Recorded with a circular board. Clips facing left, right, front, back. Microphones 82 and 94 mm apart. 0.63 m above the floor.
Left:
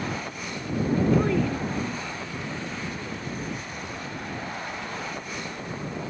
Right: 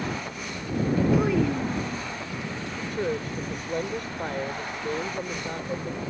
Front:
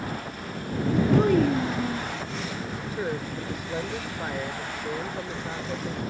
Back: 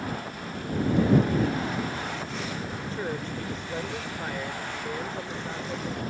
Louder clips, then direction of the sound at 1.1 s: Right 1 dB, front 3 dB; 5° right.